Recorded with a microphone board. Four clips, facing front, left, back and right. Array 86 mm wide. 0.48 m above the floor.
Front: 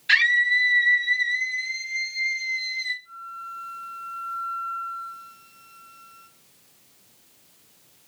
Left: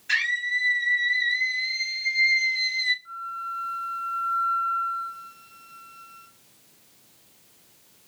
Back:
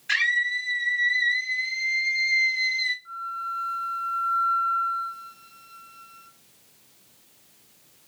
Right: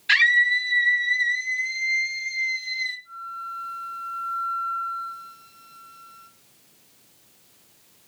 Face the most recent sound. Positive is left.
turn(degrees=135)